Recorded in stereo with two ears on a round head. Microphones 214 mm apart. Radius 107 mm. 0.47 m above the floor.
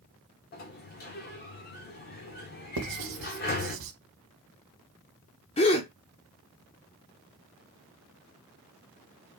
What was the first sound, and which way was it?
A sliding door, 40° left (ahead or behind).